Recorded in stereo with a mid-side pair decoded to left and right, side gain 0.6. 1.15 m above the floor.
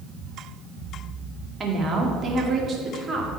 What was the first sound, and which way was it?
A woman speaking, 30° right.